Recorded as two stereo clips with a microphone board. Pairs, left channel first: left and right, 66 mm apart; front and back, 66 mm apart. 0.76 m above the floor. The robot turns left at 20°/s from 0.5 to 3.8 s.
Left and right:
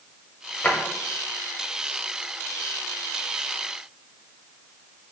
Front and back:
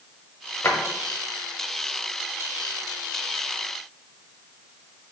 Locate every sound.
0.6 s a drawer: 40° left, 0.7 m